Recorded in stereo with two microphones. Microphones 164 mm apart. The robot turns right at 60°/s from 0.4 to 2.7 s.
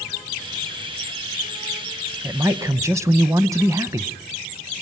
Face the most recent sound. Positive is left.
turn(degrees=-20)  # may be behind; listen again after turning